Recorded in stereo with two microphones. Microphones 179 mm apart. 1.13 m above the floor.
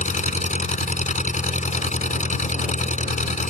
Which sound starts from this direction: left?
An engine running, at 0.0 s.